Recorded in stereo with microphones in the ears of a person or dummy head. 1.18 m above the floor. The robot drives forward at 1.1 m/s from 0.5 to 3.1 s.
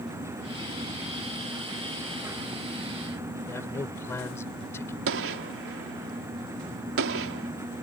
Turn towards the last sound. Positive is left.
turn(degrees=-75)  # may be behind; listen again after turning